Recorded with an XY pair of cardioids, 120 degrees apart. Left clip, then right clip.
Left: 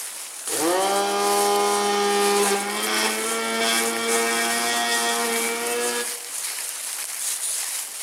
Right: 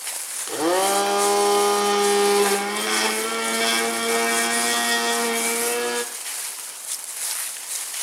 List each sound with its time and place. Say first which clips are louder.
0.5 s a blender: right 1 dB; 5° right, 1.5 m